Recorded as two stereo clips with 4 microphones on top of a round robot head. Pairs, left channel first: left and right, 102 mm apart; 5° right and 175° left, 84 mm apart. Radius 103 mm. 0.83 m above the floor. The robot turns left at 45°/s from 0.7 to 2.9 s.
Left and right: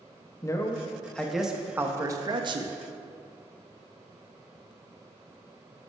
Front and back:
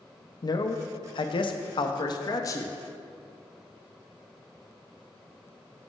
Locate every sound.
0.4 s a man speaking: 30° left, 0.7 m; by 2.7 s 65° right, 0.7 m